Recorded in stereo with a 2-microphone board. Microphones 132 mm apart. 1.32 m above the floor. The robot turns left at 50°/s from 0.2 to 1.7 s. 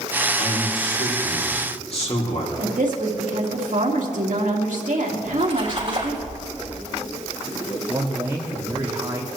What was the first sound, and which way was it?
A man speaking, 115° left.